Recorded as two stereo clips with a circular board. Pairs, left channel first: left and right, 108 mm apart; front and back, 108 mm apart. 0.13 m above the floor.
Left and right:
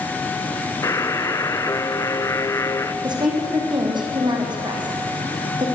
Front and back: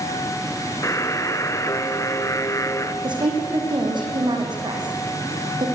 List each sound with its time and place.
0.8 s a buzzer: 45° left, 1.1 m
3.0 s a woman speaking: 135° right, 6.5 m